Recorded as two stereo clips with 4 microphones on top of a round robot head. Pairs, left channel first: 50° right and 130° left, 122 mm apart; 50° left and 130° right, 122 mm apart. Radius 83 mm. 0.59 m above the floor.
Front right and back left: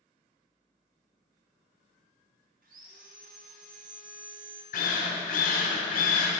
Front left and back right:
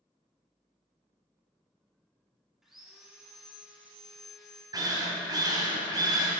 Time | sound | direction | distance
2.6 | sawing | 145° left | 0.9 m
4.7 | a drill | 65° right | 1.5 m